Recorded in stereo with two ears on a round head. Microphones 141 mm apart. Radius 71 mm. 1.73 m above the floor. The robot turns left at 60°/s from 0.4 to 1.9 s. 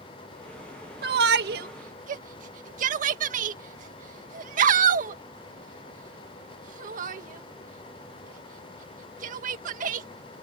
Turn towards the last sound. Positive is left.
turn(degrees=-55)  # may be behind; listen again after turning